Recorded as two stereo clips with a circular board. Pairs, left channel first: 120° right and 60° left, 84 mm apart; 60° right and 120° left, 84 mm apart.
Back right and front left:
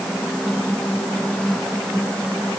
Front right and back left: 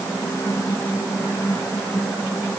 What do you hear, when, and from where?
Only background noise.